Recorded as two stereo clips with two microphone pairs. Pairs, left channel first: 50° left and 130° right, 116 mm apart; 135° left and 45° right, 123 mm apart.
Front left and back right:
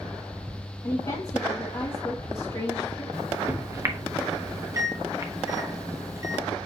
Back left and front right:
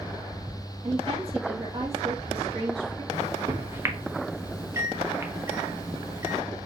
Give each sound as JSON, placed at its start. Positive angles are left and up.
{"t": 0.8, "sound": "a woman speaking", "azimuth_deg": 0, "distance_m": 1.4}
{"t": 3.1, "sound": "a microwave", "azimuth_deg": -100, "distance_m": 0.8}